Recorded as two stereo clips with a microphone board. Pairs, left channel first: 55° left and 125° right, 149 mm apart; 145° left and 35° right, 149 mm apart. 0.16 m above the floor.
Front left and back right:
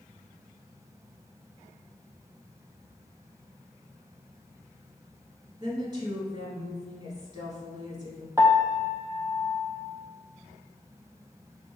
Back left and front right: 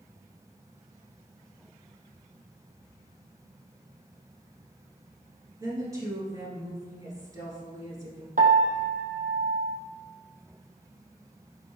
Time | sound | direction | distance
5.6 | a woman speaking | 85° right | 1.7 m
8.4 | a piano | 55° right | 0.6 m